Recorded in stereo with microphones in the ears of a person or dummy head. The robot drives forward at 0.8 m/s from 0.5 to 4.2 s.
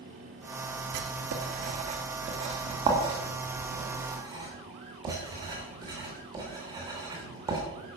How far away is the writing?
About 1.5 m.